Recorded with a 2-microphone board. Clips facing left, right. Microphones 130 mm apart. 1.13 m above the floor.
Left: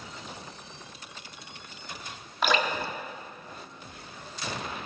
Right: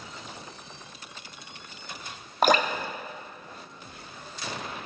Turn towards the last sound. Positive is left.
turn(degrees=-45)  # may be behind; listen again after turning